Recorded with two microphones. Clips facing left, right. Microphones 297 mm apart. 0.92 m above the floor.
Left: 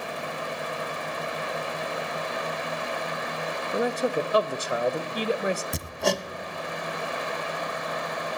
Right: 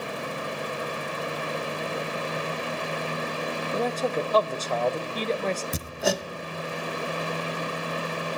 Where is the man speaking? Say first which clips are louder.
Left 2 dB; 10° left (ahead or behind), 0.6 m.